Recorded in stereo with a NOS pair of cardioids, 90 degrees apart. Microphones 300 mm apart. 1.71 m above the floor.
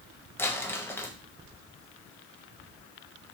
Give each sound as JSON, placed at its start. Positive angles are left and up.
{"t": 0.4, "sound": "crumpling", "azimuth_deg": 10, "distance_m": 0.9}